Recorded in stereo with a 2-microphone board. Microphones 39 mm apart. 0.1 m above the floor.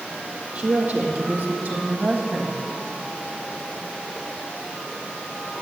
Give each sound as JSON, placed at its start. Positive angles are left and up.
{"t": 0.6, "sound": "a woman speaking", "side_deg": -35, "distance_m": 2.5}